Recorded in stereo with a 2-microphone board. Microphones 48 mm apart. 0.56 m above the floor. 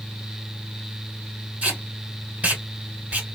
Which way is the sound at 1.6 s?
35° right (ahead or behind).